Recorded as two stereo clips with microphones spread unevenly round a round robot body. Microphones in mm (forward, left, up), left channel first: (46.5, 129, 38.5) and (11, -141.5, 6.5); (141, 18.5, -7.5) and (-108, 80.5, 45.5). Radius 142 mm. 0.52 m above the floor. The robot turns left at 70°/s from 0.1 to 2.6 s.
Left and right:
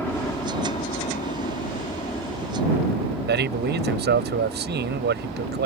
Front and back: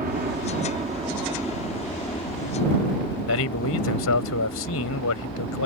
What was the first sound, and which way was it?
A helicopter, 170° left.